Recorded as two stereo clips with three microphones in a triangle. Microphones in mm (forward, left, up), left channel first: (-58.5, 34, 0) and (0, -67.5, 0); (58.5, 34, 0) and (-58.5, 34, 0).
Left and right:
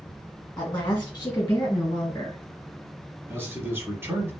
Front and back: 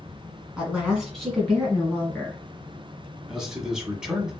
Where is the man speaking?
105° right, 1.1 m.